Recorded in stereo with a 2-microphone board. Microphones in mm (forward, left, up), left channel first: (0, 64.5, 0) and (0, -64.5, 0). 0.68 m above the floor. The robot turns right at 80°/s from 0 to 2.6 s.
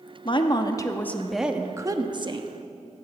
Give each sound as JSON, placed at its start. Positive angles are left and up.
{"t": 0.2, "sound": "a woman speaking", "azimuth_deg": 95, "distance_m": 0.9}